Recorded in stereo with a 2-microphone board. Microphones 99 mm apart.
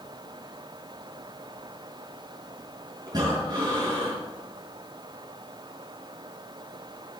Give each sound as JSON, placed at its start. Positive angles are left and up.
{"t": 3.1, "sound": "breathing", "side_deg": -40, "distance_m": 4.5}